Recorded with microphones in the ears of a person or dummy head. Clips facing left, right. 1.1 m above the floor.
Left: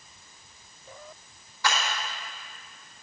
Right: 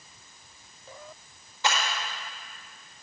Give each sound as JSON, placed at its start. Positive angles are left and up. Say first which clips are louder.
{"t": 1.6, "sound": "a clap", "louder": "even", "side_deg": -20, "distance_m": 1.3}